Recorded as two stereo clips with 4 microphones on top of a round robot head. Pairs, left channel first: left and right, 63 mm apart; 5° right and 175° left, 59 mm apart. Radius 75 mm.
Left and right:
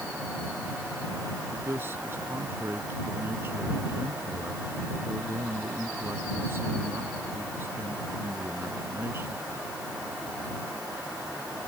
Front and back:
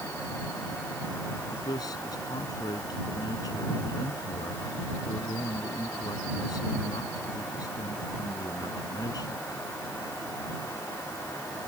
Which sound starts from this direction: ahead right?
A man speaking, at 1.5 s.